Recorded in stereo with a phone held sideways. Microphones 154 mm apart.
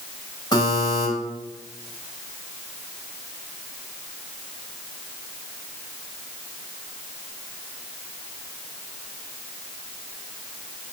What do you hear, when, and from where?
0.5 s a buzzer: 25° left (ahead or behind), 3.5 m